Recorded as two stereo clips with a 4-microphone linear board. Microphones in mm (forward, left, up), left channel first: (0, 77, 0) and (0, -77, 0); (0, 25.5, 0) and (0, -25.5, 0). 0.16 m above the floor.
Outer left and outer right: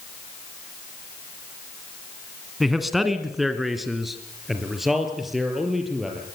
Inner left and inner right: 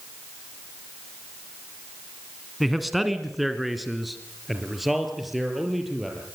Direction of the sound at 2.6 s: Centre (ahead or behind).